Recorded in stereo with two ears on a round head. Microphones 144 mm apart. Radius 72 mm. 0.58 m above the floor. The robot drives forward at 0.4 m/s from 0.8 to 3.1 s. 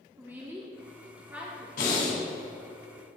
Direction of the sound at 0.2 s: 15° right (ahead or behind).